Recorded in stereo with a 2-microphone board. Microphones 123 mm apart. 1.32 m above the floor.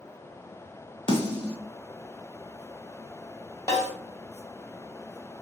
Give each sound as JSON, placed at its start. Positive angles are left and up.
{"t": 1.1, "sound": "a snare drum", "side_deg": 45, "distance_m": 0.9}
{"t": 3.7, "sound": "a snare drum", "side_deg": 30, "distance_m": 1.8}